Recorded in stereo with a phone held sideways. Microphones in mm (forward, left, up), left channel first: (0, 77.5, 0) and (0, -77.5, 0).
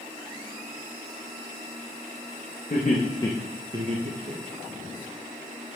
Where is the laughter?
55° left (ahead or behind), 0.9 m; by 4.9 s 65° right (ahead or behind), 1.5 m.